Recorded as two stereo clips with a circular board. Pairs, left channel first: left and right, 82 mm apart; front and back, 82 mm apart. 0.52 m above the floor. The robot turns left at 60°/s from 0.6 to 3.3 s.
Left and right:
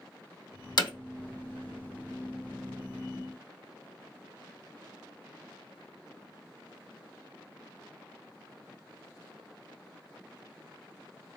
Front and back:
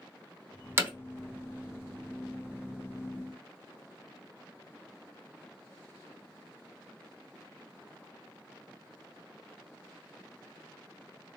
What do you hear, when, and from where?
0.8 s hammering: 120° left, 0.7 m; by 0.9 s 110° left, 0.7 m